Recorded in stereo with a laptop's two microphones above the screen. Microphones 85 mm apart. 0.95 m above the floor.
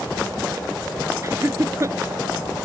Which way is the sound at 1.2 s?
35° right (ahead or behind).